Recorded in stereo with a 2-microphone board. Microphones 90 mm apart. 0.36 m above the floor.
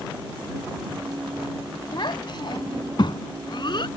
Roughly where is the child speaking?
Left.